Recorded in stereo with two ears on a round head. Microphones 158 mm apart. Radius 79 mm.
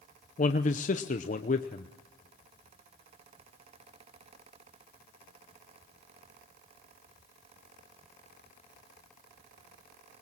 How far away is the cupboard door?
No cupboard door in this recording.